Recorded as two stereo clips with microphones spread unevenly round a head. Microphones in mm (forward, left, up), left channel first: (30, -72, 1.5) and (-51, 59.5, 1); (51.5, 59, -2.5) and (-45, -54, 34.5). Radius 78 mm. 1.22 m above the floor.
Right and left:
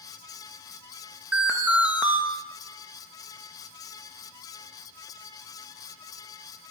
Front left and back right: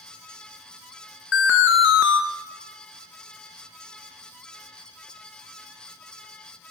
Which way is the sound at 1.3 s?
40° left.